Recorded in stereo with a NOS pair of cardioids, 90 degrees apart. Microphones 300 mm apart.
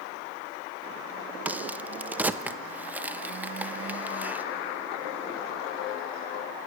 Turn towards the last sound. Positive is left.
turn(degrees=-5)